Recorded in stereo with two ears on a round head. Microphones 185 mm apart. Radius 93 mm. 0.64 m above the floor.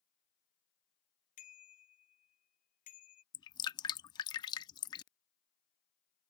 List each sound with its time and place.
1.4 s a bicycle bell: 40° left (ahead or behind)
3.3 s dripping: 20° left (ahead or behind)